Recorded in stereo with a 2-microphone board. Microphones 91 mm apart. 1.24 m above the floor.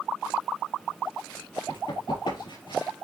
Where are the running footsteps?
70° left (ahead or behind), 5.5 m; by 2.9 s 65° left (ahead or behind), 5 m.